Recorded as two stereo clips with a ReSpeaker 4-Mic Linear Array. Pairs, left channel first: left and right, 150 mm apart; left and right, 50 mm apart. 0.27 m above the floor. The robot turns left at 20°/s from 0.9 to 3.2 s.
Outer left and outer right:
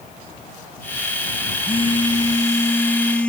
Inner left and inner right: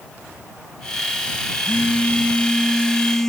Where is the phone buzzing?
35° left; by 3.3 s 5° left.